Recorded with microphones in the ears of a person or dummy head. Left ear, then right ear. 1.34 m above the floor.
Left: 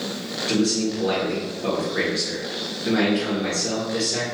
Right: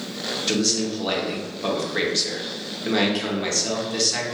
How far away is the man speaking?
About 1.1 m.